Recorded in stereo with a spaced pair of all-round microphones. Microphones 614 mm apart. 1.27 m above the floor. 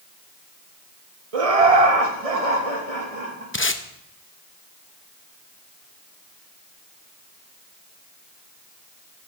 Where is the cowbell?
No cowbell in this recording.